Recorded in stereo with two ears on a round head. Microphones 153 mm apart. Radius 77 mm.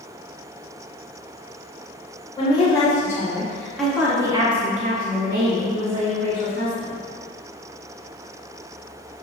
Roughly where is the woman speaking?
Left.